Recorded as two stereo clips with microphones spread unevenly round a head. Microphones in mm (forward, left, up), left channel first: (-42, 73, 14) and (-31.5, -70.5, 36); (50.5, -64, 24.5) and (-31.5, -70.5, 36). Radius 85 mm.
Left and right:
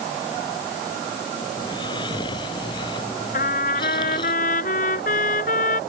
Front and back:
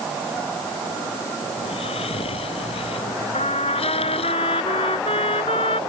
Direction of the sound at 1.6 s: 25° left.